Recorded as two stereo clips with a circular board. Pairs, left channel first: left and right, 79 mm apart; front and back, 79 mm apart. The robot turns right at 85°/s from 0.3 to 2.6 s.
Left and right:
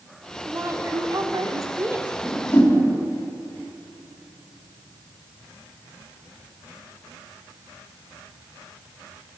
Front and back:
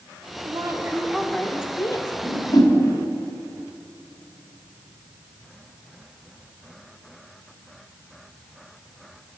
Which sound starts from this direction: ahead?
A whoosh, at 2.2 s.